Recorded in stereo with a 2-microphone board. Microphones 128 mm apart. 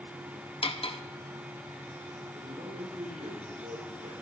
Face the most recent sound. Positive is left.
turn(degrees=-65)  # may be behind; listen again after turning